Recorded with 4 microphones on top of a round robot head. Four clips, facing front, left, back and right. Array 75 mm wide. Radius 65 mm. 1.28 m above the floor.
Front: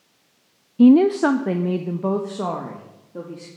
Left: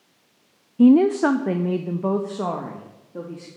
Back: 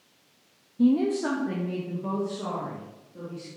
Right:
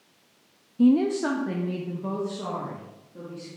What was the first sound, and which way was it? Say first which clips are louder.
A woman speaking: left 6 dB, front 10 dB; 30° left.